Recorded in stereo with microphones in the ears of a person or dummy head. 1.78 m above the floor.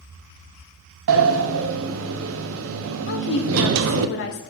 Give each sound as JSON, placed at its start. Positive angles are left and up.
{"t": 1.1, "sound": "a sliding door", "side_deg": -75, "distance_m": 0.5}
{"t": 3.1, "sound": "a woman speaking", "side_deg": 60, "distance_m": 0.8}